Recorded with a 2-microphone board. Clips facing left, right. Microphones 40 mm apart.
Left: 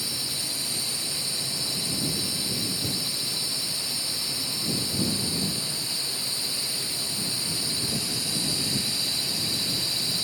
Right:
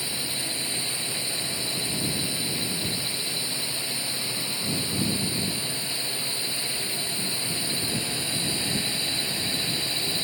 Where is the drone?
30° right (ahead or behind).